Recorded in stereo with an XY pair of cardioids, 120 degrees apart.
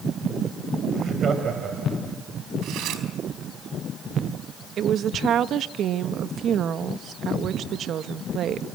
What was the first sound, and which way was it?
Laughter, 45° right.